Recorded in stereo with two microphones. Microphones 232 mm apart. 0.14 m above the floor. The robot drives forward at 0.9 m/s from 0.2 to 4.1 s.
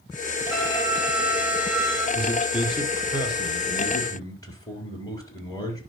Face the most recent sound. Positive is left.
turn(degrees=15)  # may be behind; listen again after turning